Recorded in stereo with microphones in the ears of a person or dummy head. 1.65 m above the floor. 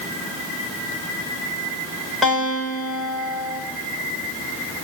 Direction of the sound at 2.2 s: 5° left (ahead or behind).